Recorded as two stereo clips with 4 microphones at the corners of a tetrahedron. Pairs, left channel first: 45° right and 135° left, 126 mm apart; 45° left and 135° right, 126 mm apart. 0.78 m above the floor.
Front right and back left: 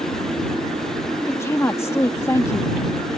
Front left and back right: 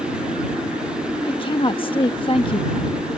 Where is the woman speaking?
15° left.